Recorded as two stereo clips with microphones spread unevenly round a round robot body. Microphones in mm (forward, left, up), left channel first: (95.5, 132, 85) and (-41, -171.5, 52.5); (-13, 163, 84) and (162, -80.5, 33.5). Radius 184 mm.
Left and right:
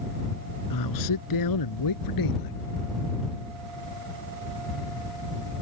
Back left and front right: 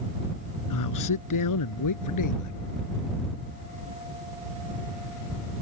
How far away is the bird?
I don't hear a bird.